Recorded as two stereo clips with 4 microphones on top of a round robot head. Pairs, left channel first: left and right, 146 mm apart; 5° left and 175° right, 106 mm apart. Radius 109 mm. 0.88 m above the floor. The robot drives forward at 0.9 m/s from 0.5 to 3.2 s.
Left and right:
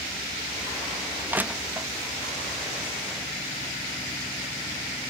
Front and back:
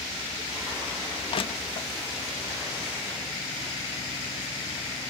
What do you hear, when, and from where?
1.3 s crushing: 15° right; by 1.9 s 20° right